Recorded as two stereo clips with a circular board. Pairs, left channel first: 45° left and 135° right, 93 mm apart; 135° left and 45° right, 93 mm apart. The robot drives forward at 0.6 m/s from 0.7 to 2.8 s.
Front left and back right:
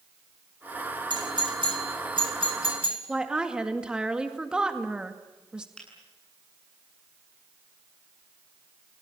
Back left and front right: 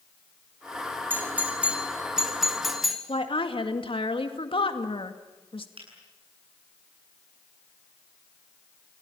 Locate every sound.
1.1 s a doorbell: 110° right, 2 m; by 3.0 s 135° right, 2.5 m
3.1 s a woman speaking: 145° left, 2 m
5.8 s a finger snap: 35° right, 9 m